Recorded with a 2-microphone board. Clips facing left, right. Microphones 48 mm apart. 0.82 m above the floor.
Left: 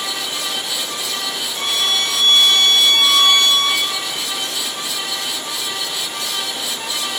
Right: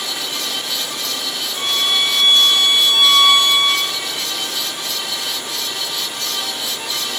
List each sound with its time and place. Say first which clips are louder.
1.6 s a violin: right 1 dB; 15° right (ahead or behind), 6 m